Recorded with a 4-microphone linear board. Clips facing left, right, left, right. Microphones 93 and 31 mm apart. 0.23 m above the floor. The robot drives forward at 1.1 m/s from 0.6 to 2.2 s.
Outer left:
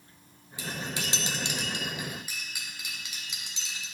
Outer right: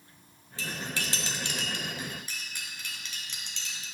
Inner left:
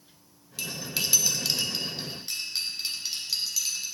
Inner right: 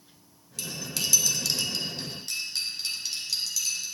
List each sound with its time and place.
0.6 s cutlery clinking: 15° left (ahead or behind), 1.1 m